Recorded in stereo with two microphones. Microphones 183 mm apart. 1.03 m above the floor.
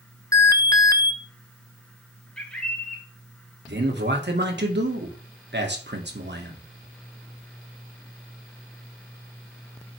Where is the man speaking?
70° right (ahead or behind), 2 m.